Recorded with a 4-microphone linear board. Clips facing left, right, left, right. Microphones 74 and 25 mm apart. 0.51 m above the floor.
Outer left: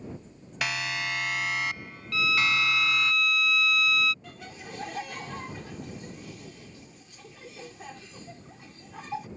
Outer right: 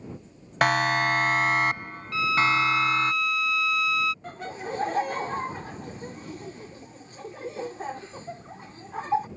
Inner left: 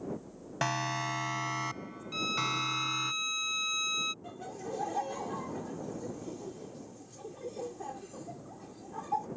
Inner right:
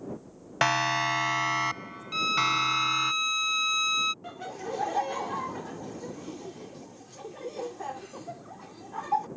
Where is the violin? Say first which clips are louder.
Outer right 4 dB, inner right 7 dB; 25° right (ahead or behind).